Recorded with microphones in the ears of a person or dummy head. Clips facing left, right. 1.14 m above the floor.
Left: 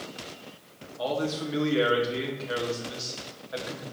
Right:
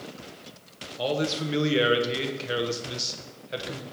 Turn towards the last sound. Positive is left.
turn(degrees=-35)  # may be behind; listen again after turning